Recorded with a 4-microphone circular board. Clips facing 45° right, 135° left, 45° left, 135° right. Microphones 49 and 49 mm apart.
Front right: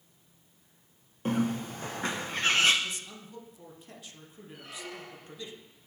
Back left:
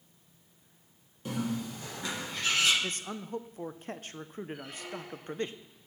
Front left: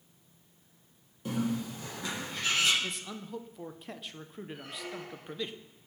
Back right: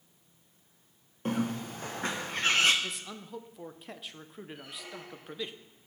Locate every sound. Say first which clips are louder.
1.2 s a bird: front right 4 dB, back right 1 dB; 90° right, 1.0 m
2.8 s a man speaking: back left 3 dB, front left 1 dB; 140° left, 0.5 m
4.5 s a squeak: back left 1 dB, front left 5 dB; 40° left, 3 m